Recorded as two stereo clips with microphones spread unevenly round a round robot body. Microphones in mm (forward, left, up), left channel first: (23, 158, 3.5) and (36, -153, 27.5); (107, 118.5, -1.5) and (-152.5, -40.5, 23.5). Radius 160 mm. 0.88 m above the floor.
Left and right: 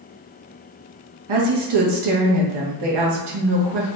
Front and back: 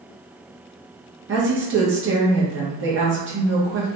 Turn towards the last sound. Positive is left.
turn(degrees=-90)